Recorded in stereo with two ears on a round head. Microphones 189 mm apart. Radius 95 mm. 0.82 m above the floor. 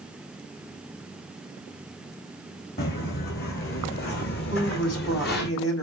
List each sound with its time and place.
2.8 s footsteps: 50° left (ahead or behind), 3 m
4.5 s a woman speaking: 65° left (ahead or behind), 5 m